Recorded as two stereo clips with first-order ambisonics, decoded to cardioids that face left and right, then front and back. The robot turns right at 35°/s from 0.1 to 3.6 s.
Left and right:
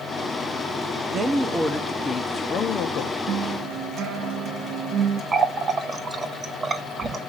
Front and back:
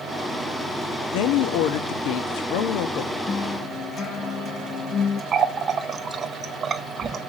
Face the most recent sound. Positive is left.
turn(degrees=-145)